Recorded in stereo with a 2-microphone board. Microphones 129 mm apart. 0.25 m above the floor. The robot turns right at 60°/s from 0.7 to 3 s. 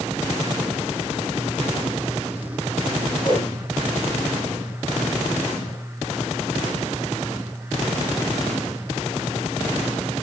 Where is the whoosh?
45° left (ahead or behind), 7.5 m.